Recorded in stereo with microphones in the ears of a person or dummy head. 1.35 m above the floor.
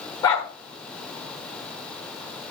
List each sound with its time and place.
0.2 s a dog barking: 20° left (ahead or behind), 1.4 m